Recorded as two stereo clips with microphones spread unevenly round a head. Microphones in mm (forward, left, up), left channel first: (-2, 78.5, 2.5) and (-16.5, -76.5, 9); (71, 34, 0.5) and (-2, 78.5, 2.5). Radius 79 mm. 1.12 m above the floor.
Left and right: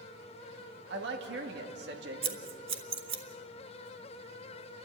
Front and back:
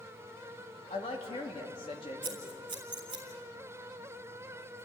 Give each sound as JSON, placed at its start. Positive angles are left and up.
{"t": 0.9, "sound": "a woman speaking", "azimuth_deg": -75, "distance_m": 2.5}
{"t": 2.2, "sound": "scissors", "azimuth_deg": -150, "distance_m": 2.0}